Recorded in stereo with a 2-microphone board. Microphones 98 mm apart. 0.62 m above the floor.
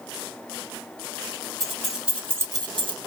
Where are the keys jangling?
5° left (ahead or behind), 1.3 m; by 3.0 s 55° right (ahead or behind), 0.6 m.